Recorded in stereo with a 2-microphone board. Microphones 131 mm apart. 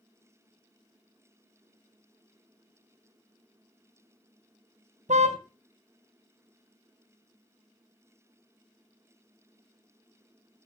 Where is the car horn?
65° right (ahead or behind), 3 m.